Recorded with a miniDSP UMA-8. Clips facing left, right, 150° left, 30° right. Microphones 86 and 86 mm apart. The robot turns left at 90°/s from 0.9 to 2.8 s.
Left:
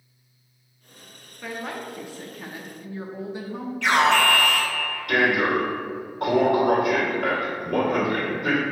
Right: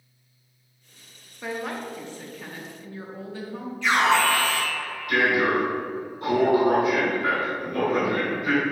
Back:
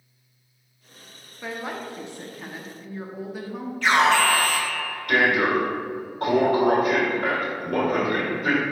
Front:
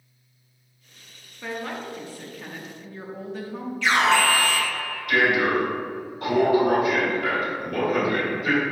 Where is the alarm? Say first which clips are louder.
Left 1 dB, back 1 dB; 105° left, 2 m.